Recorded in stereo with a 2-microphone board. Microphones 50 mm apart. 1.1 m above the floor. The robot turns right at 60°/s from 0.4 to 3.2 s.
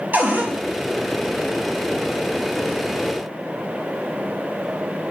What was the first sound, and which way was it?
A cupboard door, 35° right (ahead or behind).